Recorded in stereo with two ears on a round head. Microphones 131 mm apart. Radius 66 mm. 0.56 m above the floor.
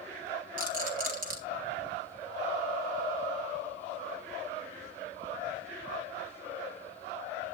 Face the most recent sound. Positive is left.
turn(degrees=-65)  # may be behind; listen again after turning